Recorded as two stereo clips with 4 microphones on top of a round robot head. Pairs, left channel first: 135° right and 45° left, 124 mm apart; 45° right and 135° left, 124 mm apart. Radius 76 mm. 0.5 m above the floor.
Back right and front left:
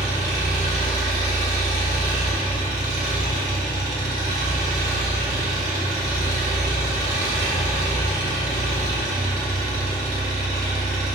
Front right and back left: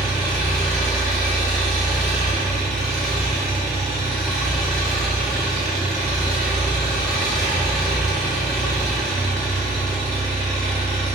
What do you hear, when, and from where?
0.0 s an engine running: 40° left, 1.9 m